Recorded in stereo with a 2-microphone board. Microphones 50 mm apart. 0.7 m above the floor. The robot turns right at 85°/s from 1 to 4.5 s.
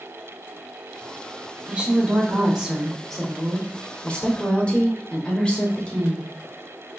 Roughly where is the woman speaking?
Right.